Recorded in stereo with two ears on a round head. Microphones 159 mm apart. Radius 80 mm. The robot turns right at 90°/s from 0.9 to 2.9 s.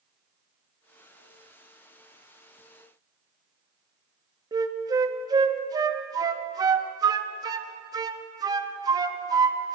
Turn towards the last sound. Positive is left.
turn(degrees=-20)  # may be behind; listen again after turning